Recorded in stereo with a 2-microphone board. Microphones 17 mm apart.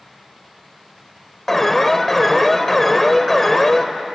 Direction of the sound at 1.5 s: 15° left (ahead or behind).